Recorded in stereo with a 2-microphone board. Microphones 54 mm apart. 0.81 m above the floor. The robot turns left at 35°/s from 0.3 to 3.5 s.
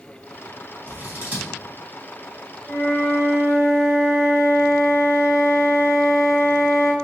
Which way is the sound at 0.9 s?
35° right (ahead or behind).